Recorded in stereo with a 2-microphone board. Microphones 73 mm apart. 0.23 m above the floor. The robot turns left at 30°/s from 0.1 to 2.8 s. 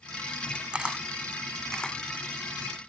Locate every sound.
0.7 s a camera shutter: 15° right (ahead or behind); by 2.9 s 35° left (ahead or behind)